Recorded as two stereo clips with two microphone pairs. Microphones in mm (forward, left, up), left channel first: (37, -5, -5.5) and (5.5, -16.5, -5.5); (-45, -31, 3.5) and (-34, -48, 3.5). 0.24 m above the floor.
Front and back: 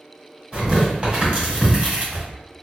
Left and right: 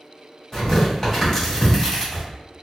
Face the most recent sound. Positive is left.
turn(degrees=170)